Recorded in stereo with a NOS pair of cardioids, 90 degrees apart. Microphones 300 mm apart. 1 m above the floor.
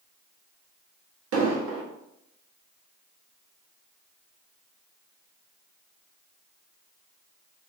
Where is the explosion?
50° right, 1.2 m.